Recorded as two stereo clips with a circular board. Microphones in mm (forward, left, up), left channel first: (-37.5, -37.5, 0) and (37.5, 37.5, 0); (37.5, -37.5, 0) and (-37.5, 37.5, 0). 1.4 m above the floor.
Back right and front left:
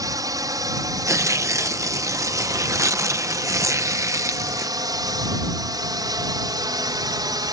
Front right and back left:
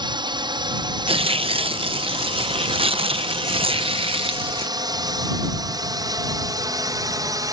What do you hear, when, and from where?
0.0 s a drone: 95° left; by 7.5 s 90° left
1.1 s tearing paper: 105° left